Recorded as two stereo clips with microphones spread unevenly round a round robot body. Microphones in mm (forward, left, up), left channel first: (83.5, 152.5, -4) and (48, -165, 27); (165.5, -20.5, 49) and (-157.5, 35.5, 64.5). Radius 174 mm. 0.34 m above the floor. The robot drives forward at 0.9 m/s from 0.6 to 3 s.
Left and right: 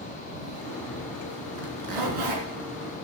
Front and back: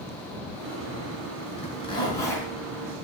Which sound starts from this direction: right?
A zipper, at 1.6 s.